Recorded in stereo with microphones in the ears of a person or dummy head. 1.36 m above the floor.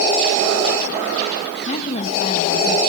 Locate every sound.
1.6 s a woman speaking: 45° left (ahead or behind), 1.7 m